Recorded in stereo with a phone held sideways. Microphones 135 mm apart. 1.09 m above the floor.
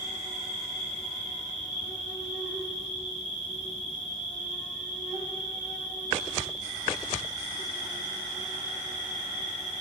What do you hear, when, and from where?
0.0 s an insect: 65° right (ahead or behind), 3 m